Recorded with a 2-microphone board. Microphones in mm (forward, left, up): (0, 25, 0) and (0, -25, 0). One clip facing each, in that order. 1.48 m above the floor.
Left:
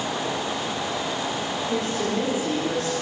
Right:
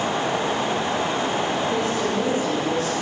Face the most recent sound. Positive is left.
turn(degrees=40)  # may be behind; listen again after turning